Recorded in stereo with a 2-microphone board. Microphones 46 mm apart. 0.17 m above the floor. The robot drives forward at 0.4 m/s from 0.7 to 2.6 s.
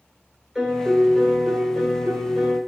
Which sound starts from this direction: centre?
A piano, at 0.6 s.